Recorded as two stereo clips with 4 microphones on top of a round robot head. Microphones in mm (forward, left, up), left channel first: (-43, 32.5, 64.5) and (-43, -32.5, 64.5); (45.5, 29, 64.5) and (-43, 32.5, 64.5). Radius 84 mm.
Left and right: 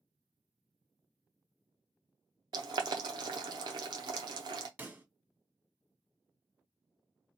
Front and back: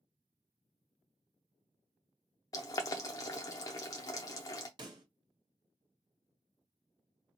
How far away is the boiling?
About 0.5 m.